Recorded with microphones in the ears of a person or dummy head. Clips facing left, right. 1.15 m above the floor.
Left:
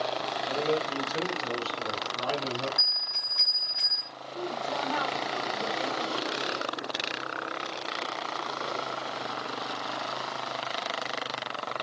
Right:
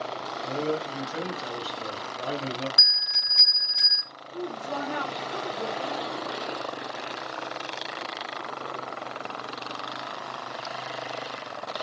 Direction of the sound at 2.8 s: 55° right (ahead or behind).